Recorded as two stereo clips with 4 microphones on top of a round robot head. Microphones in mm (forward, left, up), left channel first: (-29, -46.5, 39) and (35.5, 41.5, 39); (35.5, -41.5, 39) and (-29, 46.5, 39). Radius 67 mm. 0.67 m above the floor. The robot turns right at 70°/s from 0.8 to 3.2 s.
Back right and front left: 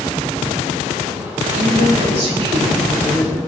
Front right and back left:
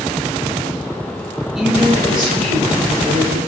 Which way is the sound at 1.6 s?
40° left.